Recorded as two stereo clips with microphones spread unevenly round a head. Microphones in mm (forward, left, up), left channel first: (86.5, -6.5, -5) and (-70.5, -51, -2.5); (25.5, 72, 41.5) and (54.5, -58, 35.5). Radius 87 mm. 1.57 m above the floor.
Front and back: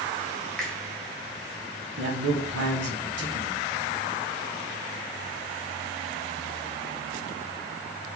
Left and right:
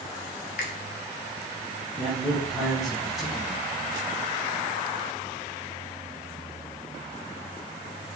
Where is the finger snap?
100° left, 0.9 m.